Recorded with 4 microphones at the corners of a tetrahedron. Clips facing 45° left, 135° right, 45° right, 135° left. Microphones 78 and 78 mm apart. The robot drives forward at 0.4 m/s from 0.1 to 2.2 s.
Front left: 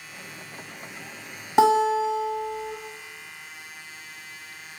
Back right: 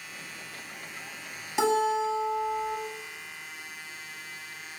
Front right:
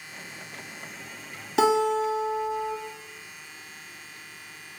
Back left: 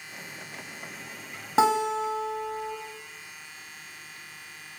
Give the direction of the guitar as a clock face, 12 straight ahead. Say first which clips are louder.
Front left 6 dB, front right 1 dB; 9 o'clock.